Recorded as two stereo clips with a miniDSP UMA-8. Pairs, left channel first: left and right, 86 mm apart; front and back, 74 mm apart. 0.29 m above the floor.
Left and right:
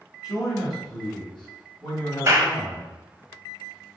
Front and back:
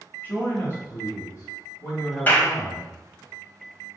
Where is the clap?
55° right, 1.1 m.